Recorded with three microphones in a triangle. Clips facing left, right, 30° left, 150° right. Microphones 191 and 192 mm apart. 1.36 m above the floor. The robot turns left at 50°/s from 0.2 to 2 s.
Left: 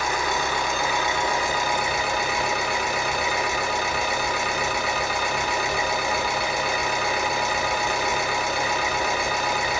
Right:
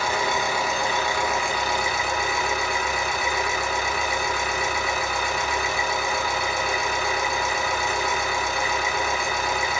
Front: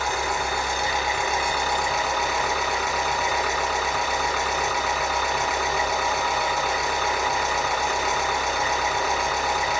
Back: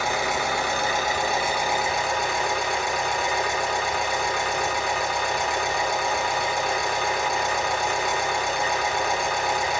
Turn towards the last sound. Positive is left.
turn(degrees=115)